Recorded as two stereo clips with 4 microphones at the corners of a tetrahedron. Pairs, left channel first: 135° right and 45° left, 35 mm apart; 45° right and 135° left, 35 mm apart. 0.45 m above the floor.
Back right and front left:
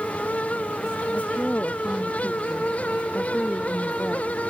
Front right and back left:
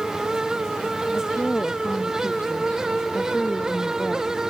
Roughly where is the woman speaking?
Right.